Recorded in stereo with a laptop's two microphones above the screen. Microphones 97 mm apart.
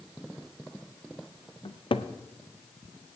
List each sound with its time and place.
1.6 s a cupboard door: 65° left (ahead or behind), 0.5 m